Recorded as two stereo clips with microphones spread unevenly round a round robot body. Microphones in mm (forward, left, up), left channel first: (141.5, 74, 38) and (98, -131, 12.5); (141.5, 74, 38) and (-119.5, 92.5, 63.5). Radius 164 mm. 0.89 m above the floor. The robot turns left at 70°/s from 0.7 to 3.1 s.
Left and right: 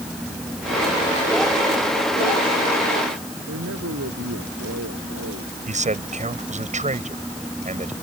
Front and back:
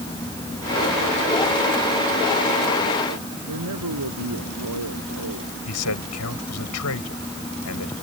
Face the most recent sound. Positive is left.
turn(degrees=-45)